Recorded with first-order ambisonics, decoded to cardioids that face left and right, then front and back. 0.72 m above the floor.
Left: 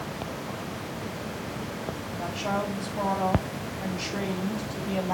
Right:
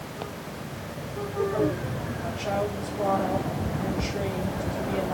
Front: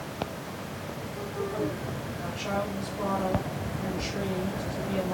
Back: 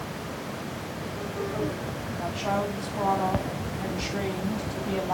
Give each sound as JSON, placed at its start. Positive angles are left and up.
{"t": 2.2, "sound": "a woman speaking", "azimuth_deg": 125, "distance_m": 4.5}